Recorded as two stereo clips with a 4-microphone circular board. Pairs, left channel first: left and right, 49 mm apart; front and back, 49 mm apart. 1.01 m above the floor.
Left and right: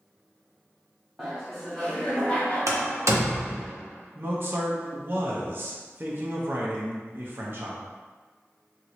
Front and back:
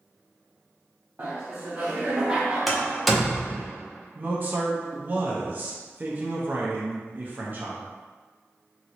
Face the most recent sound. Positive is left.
turn(degrees=-130)